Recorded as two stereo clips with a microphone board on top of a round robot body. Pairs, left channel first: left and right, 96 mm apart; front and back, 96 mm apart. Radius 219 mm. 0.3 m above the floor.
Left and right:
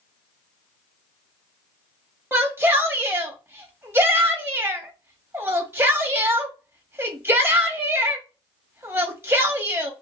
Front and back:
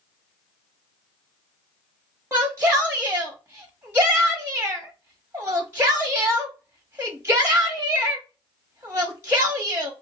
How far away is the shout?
About 1.2 m.